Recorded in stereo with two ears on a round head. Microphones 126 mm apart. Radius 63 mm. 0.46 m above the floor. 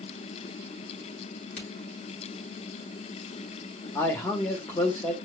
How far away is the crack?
About 3.5 m.